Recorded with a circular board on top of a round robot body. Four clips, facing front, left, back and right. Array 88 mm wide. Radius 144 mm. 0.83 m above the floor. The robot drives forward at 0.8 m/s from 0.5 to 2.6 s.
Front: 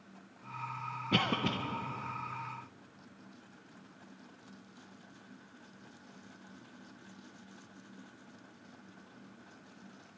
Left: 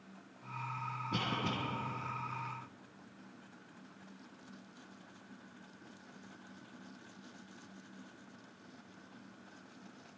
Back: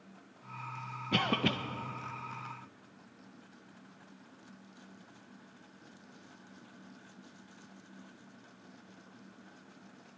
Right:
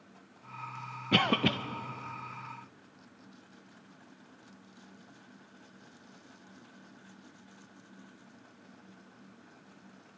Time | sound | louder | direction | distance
1.1 | a cough | right 10 dB, back 1 dB | 85° right | 0.6 m